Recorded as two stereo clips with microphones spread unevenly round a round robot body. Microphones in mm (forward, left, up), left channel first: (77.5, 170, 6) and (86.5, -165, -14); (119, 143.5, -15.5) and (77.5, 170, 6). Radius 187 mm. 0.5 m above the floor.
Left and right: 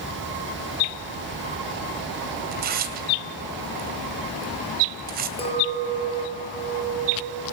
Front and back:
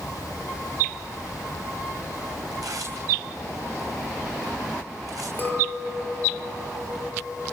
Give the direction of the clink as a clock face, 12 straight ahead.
11 o'clock.